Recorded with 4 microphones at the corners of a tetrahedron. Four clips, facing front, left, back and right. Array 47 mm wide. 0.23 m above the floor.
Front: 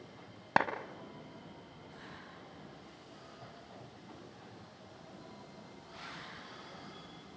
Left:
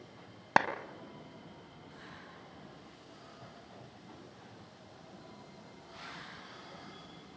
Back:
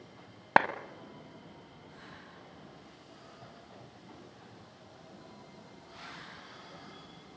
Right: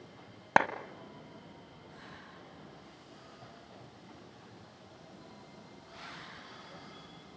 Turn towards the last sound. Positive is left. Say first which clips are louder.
# right 2 dB, back 5 dB
turn(degrees=-160)